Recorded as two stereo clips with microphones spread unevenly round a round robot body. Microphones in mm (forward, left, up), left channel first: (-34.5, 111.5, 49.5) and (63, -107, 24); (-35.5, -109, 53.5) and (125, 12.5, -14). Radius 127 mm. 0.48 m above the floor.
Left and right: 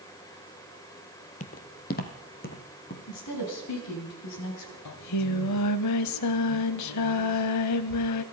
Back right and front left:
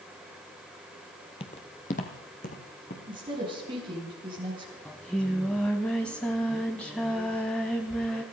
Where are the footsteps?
165° left, 0.8 m.